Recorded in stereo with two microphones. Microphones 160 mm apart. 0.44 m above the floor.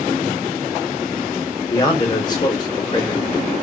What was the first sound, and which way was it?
A man speaking, 25° left (ahead or behind).